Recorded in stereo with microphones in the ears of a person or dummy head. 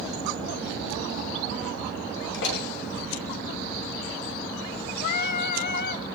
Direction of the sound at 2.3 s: 70° left (ahead or behind).